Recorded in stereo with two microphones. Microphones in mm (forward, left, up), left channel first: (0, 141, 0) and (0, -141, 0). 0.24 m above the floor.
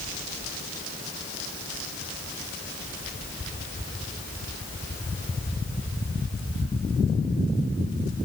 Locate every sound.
Only background noise.